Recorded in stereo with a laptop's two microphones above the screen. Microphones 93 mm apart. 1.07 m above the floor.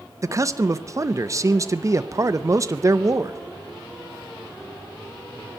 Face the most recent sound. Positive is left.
turn(degrees=-35)  # may be behind; listen again after turning